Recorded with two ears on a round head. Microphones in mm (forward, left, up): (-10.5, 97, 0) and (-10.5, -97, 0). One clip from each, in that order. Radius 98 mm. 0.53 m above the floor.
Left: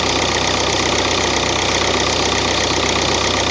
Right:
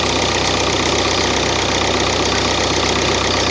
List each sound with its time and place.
0.0 s an engine running: 10° left (ahead or behind)